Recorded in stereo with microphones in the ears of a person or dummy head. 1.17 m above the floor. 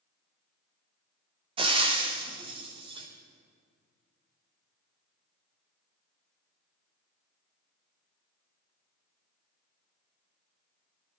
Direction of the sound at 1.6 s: 30° right (ahead or behind).